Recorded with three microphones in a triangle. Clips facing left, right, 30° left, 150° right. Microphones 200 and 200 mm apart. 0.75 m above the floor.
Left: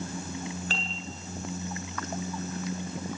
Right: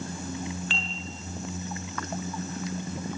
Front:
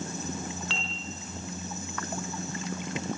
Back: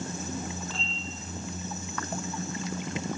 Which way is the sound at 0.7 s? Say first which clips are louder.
Even, even; 40° left.